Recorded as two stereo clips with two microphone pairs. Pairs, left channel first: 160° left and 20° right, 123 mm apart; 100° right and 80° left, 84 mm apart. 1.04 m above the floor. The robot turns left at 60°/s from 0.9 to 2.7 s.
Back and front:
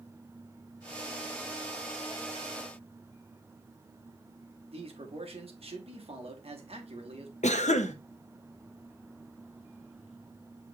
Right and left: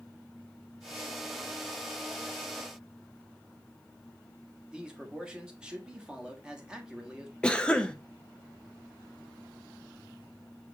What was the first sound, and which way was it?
A man speaking, straight ahead.